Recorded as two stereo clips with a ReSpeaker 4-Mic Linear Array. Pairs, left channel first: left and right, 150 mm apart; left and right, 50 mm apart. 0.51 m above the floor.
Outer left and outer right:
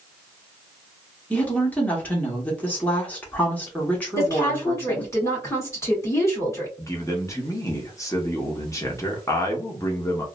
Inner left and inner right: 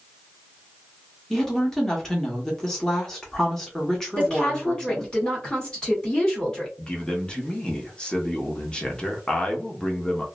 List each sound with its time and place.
1.3 s a woman speaking: 10° left (ahead or behind), 1.1 m
4.2 s a woman speaking: 20° left (ahead or behind), 1.6 m
6.8 s a man speaking: 20° left (ahead or behind), 0.8 m